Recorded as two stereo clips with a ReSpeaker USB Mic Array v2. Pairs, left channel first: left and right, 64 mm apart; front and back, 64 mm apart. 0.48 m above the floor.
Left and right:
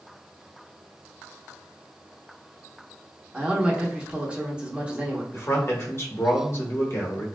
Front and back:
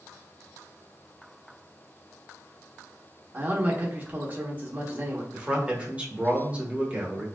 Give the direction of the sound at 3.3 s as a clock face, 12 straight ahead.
5 o'clock.